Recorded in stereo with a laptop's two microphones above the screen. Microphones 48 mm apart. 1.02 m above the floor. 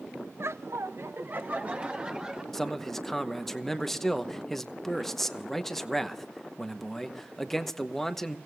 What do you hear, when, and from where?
0.4 s laughter: 55° right (ahead or behind), 0.5 m; by 2.4 s 20° right (ahead or behind), 1.4 m
2.5 s a man speaking: 5° left (ahead or behind), 0.9 m